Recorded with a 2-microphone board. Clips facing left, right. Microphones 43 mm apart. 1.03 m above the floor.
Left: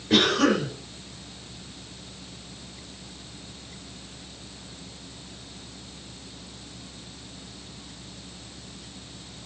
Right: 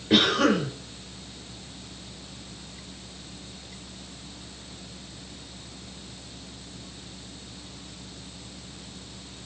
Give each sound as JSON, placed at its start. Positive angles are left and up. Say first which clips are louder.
{"t": 0.1, "sound": "a cough", "louder": "even", "side_deg": -10, "distance_m": 3.5}